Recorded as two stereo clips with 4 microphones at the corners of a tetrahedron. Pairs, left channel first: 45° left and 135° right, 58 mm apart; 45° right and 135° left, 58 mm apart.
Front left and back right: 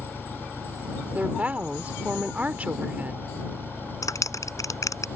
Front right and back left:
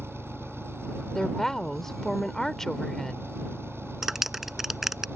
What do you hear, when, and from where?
0.0 s an engine running: 95° left
1.1 s a woman speaking: 120° right
4.0 s a clap: 50° left